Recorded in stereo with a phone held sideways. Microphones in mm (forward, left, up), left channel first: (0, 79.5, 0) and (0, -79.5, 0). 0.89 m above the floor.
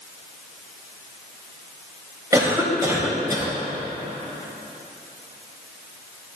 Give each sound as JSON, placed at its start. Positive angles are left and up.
{"t": 2.3, "sound": "a cough", "side_deg": -20, "distance_m": 4.0}